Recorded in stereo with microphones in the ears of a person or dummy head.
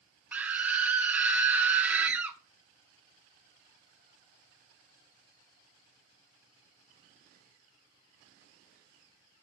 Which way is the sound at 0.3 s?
10° right (ahead or behind).